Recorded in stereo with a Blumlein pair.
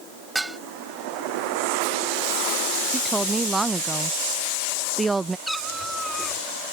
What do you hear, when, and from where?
0.3 s dishes clattering: 5° right
2.9 s a woman speaking: 10° right
5.5 s a cat meowing: straight ahead